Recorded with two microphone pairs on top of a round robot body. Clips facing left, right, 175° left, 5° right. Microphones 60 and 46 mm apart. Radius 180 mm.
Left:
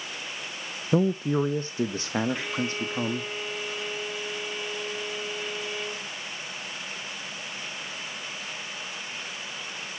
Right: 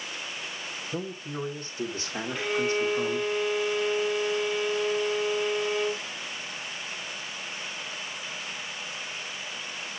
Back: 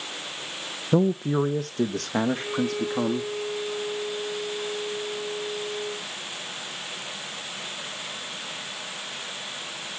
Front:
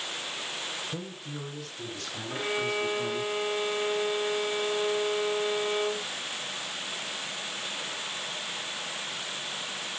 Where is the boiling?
No boiling in this recording.